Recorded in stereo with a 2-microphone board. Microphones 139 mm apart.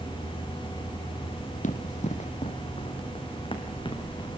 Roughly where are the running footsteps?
Left.